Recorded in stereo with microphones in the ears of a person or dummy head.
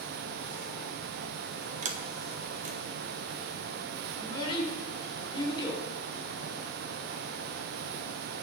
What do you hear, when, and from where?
1.8 s a sliding door: 35° right (ahead or behind), 0.7 m
4.2 s a child speaking: 30° left (ahead or behind), 2.5 m